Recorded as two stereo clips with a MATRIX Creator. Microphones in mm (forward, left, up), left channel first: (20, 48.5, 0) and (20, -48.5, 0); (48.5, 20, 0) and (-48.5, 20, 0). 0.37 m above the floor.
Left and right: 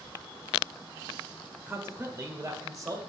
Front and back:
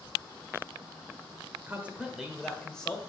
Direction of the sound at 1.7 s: 135° right.